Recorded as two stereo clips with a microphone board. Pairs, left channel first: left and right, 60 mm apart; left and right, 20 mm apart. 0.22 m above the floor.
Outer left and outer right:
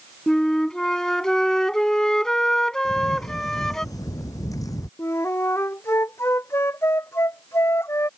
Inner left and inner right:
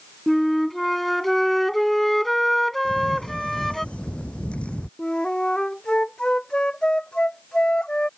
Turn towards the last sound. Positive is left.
turn(degrees=45)  # may be behind; listen again after turning